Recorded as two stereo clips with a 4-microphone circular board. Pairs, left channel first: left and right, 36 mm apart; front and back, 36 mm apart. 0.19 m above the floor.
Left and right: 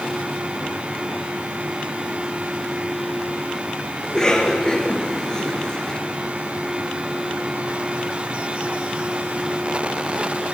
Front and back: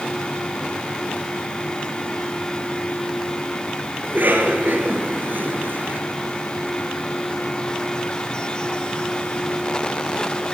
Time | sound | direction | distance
4.0 | a cough | 160° left | 4 m